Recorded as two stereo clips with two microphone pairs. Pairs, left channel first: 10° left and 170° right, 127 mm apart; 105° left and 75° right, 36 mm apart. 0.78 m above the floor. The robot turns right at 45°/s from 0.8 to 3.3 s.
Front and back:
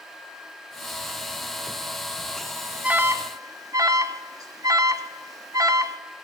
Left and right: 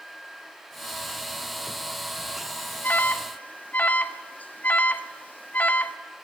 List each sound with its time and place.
2.8 s an alarm: 115° left, 1.4 m; by 6.0 s 135° left, 1.4 m